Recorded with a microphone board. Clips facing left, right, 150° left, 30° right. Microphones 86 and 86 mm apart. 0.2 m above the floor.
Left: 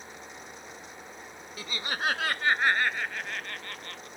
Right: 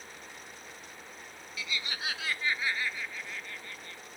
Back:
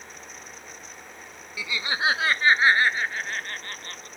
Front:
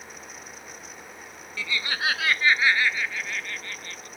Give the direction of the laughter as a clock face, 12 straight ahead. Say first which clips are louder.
Left 5 dB, back 2 dB; 9 o'clock.